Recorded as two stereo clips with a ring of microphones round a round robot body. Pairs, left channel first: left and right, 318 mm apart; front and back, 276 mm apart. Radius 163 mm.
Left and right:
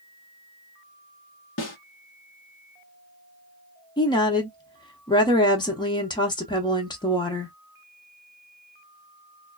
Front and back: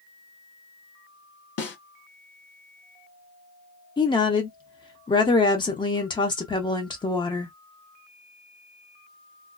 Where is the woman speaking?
40° left, 0.7 m.